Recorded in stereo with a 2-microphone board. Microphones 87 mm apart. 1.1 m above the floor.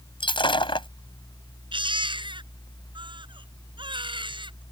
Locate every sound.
0.2 s breaking glass: 75° left (ahead or behind)
1.7 s a baby crying: 75° right (ahead or behind)